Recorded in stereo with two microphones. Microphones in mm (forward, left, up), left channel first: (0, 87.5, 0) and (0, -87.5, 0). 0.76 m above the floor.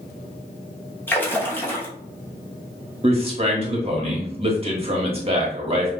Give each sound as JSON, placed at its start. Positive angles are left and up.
{"t": 1.1, "sound": "a splash", "side_deg": 10, "distance_m": 0.8}
{"t": 3.0, "sound": "a man speaking", "side_deg": -35, "distance_m": 1.3}